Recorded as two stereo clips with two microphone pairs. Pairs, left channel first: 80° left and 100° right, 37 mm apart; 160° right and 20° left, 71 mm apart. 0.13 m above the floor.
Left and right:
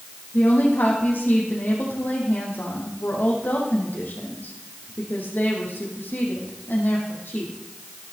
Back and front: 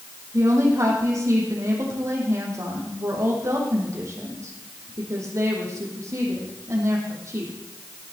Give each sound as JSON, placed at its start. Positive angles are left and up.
{"t": 0.3, "sound": "a woman speaking", "azimuth_deg": 60, "distance_m": 4.5}